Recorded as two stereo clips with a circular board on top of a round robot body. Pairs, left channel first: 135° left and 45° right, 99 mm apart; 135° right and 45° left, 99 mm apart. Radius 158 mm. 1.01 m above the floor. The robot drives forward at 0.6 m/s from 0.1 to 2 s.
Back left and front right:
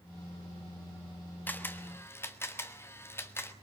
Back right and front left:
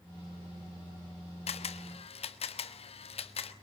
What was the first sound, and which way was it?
A camera shutter, 150° right.